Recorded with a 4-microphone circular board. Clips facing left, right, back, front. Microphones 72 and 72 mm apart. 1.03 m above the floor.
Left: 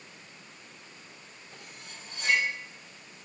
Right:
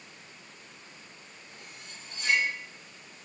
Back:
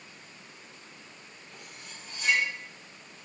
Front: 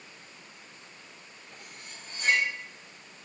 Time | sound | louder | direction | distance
1.5 | cutlery clinking | left 1 dB, even | 50° left | 3 m